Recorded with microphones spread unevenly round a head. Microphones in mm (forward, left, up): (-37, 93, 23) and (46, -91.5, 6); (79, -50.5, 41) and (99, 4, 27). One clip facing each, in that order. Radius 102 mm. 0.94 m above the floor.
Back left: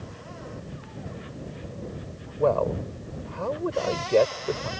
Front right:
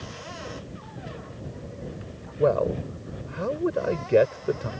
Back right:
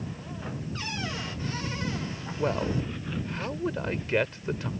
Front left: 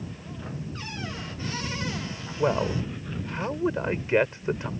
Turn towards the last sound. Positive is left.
turn(degrees=5)